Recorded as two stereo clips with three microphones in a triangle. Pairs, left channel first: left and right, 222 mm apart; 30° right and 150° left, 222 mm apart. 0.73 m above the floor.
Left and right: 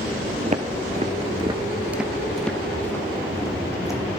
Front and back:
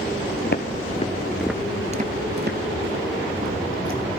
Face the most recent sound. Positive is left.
turn(degrees=165)